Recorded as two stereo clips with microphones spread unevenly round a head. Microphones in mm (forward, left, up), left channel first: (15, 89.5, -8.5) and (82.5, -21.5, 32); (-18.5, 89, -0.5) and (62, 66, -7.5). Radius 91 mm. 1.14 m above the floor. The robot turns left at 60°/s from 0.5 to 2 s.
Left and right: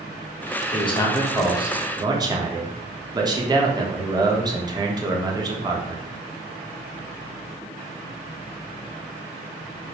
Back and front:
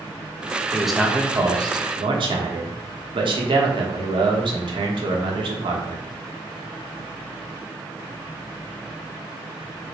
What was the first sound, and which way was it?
A man speaking, 80° left.